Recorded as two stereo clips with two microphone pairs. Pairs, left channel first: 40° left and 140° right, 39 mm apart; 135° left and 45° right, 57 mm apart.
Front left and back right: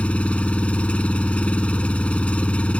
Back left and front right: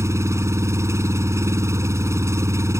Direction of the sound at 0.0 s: 15° right.